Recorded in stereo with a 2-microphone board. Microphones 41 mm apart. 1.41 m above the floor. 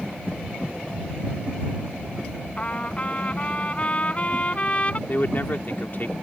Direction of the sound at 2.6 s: 30° left (ahead or behind).